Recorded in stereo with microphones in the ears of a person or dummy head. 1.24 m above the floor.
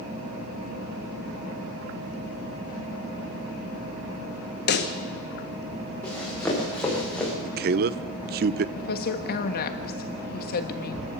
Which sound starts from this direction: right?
A man speaking, at 7.5 s.